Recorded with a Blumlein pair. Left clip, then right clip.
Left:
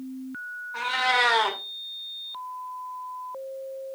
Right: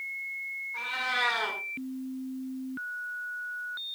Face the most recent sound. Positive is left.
turn(degrees=25)